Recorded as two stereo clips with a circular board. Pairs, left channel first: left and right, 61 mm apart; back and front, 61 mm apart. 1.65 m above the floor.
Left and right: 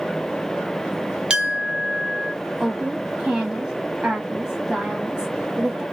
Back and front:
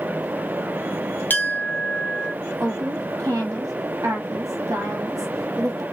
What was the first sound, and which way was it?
A clink, 155° right.